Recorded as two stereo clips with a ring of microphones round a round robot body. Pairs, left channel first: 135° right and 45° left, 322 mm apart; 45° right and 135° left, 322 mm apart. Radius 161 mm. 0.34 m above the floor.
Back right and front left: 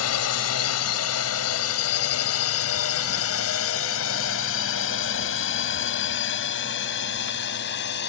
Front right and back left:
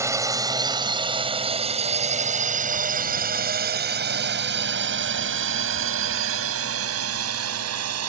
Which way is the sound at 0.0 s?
145° right.